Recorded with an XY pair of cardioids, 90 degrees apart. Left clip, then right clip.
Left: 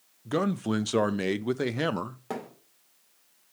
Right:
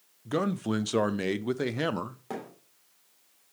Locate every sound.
0.2 s a man speaking: 10° left, 0.6 m
2.3 s a thud: 30° left, 3 m